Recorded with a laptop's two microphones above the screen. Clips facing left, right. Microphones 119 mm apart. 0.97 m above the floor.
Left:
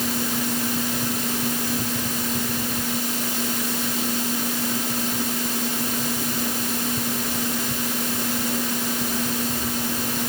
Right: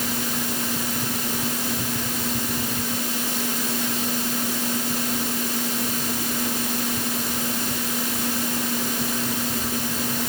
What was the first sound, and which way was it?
Only background noise.